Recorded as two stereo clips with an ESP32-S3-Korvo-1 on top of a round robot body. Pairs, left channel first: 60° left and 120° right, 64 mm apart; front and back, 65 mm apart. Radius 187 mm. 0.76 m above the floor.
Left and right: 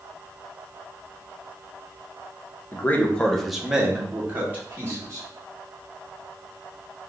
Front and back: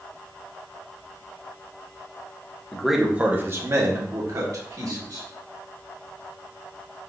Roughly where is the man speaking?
Left.